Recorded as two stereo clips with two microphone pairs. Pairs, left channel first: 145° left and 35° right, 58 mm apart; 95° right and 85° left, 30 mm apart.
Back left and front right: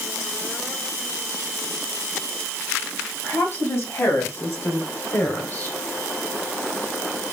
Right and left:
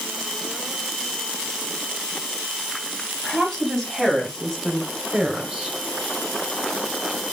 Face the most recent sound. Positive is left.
turn(degrees=120)